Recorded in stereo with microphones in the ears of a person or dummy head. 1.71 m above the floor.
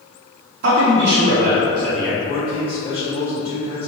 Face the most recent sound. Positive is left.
turn(degrees=25)  # may be behind; listen again after turning